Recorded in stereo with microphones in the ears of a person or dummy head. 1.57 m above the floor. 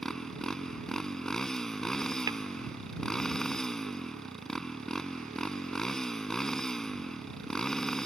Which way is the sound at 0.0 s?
Centre (ahead or behind).